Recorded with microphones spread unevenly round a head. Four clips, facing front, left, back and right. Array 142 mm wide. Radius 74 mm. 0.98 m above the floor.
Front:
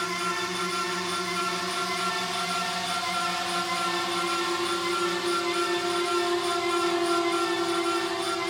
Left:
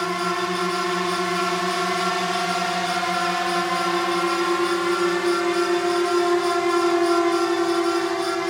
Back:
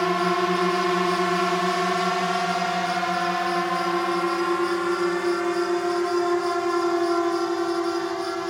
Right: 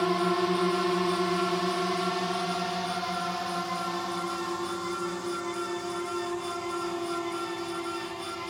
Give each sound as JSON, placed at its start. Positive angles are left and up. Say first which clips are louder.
{"t": 0.0, "sound": "a drone", "louder": "left 2 dB, back 9 dB", "azimuth_deg": 180}